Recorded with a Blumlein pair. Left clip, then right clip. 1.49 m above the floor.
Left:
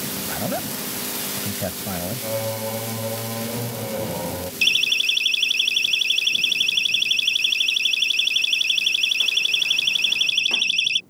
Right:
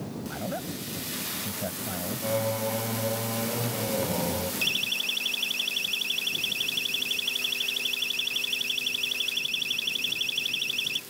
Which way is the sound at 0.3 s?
70° left.